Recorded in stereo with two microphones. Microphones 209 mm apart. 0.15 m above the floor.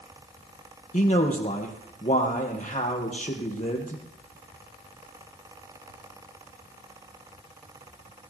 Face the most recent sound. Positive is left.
turn(degrees=35)  # may be behind; listen again after turning